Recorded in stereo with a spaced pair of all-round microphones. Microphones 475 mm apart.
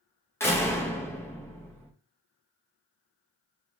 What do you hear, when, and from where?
0.4 s a door slam: 5° left (ahead or behind), 0.7 m